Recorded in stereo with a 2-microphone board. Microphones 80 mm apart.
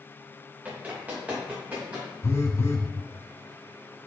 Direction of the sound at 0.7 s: 20° right (ahead or behind).